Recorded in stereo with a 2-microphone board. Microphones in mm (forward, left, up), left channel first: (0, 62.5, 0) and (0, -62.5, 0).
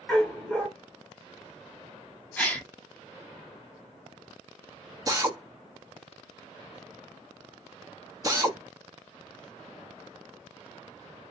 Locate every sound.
0.1 s a dog barking: 5° left (ahead or behind), 1.8 m
2.4 s a gasp: 10° left (ahead or behind), 0.8 m
5.1 s a drill: 25° right (ahead or behind), 0.8 m